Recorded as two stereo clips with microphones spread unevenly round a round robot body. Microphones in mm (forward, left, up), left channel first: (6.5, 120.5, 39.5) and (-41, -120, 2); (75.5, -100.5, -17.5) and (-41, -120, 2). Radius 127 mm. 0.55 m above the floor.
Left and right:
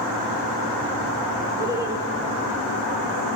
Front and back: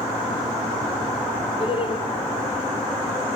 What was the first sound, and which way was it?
Laughter, 25° right.